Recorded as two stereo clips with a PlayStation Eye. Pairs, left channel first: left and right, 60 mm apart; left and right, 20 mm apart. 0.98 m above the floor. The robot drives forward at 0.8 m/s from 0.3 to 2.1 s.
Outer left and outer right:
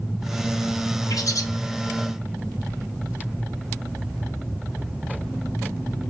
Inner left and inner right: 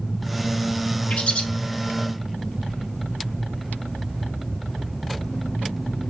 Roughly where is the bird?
Left.